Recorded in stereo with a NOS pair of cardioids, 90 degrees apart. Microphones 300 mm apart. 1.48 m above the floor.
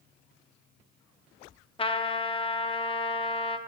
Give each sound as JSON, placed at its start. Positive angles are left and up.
{"t": 1.8, "sound": "a trumpet", "azimuth_deg": 20, "distance_m": 0.6}